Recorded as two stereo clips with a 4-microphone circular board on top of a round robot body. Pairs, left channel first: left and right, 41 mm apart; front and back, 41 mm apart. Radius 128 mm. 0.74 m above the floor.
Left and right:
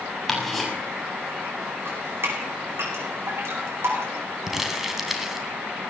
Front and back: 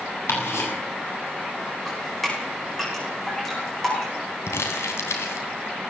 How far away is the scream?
No scream in this recording.